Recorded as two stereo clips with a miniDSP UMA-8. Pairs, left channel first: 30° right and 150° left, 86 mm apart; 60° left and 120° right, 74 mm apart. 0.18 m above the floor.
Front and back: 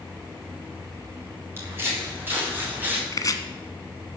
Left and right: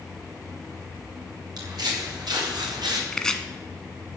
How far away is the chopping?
About 1.2 m.